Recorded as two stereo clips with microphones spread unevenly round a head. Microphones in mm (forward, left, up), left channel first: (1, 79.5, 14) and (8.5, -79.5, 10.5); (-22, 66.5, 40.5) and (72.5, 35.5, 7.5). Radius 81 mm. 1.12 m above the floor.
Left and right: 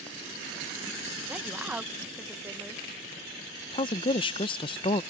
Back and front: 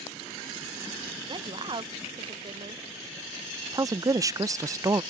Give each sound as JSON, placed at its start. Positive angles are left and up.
{"t": 1.3, "sound": "a woman speaking", "azimuth_deg": -5}
{"t": 3.7, "sound": "a woman speaking", "azimuth_deg": 35}